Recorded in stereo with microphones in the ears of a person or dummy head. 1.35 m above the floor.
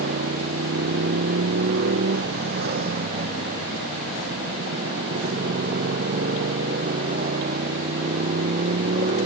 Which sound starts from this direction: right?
A motorcycle, at 0.0 s.